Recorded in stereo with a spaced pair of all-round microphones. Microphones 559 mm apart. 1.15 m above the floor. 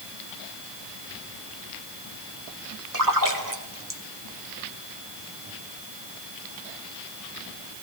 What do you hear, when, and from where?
2.9 s a splash: 35° right (ahead or behind), 1.5 m